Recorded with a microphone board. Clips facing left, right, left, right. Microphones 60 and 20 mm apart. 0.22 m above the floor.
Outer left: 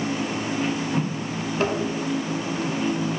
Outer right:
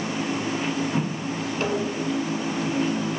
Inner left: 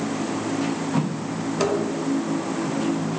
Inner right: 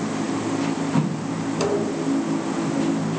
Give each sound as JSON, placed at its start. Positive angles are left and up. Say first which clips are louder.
{"t": 1.6, "sound": "tapping", "louder": "outer left 2 dB, even", "side_deg": 75, "distance_m": 6.5}